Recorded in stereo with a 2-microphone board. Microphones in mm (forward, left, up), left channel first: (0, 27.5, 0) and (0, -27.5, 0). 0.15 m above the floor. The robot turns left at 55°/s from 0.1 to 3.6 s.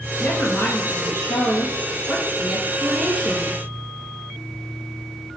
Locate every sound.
0.2 s a woman speaking: 145° left, 2.5 m; by 3.6 s 45° right, 2.5 m